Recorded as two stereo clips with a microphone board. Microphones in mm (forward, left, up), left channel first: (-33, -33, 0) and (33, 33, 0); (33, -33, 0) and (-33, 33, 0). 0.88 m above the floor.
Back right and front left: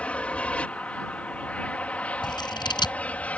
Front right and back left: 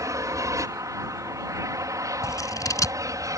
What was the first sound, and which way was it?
An aircraft, 155° left.